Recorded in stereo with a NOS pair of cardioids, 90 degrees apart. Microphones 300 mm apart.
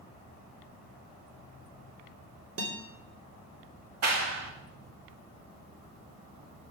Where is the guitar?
50° right, 4 m.